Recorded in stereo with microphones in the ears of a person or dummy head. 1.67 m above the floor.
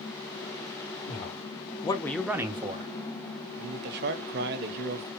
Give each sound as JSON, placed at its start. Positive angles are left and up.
{"t": 1.1, "sound": "a man speaking", "side_deg": 55, "distance_m": 1.6}
{"t": 3.6, "sound": "a man speaking", "side_deg": -60, "distance_m": 1.1}